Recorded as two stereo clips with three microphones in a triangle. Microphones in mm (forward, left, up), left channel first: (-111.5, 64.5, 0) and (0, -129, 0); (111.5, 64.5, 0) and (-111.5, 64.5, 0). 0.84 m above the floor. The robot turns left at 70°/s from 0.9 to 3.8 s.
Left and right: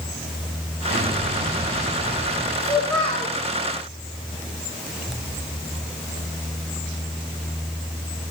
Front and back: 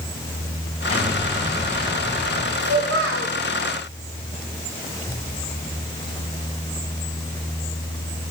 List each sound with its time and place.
0.9 s an explosion: 60° right, 4 m; by 2.5 s 170° right, 4 m
2.6 s a child speaking: 140° right, 1.6 m; by 3.3 s 165° left, 1.6 m